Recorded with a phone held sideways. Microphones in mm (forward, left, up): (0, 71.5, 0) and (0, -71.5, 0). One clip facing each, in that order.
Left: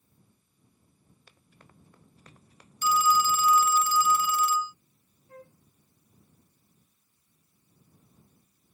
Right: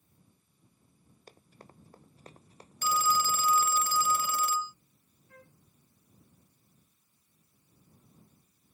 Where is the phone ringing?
55° right (ahead or behind).